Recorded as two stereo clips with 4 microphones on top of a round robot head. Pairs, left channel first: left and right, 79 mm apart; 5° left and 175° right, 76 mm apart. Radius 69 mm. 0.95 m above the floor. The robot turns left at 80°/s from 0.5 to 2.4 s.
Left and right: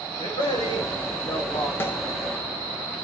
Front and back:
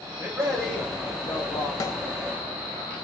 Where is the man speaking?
105° left, 1.3 m; by 1.7 s 10° left, 1.3 m.